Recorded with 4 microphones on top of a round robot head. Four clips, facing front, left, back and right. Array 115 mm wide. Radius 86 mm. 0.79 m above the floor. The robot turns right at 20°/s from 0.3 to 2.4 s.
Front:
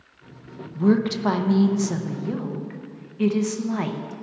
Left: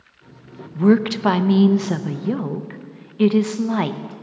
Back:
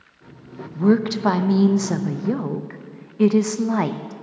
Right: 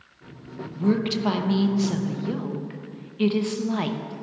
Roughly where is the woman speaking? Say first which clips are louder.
Left 7 dB, back 2 dB; left.